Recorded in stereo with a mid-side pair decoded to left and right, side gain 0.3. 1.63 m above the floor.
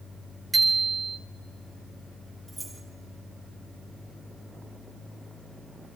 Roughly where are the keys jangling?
Ahead right.